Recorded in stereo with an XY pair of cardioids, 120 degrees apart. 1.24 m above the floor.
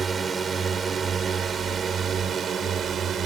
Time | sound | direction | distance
0.0 | a drone | 35° right | ?